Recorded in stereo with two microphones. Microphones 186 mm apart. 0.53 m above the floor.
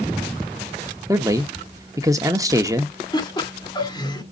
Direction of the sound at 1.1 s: 20° right (ahead or behind).